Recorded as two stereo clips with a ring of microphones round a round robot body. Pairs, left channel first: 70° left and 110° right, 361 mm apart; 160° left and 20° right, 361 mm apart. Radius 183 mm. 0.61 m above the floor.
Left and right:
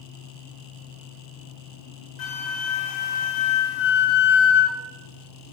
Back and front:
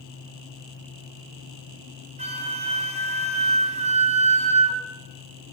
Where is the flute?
50° left, 2.5 m.